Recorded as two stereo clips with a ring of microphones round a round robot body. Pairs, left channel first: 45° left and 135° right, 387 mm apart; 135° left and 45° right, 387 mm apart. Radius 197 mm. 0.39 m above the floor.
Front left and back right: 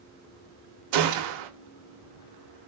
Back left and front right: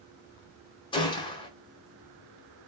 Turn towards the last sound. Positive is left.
turn(degrees=-150)